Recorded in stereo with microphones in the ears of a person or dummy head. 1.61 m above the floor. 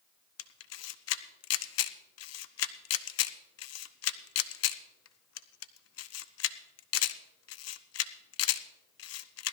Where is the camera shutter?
75° left (ahead or behind), 0.6 m.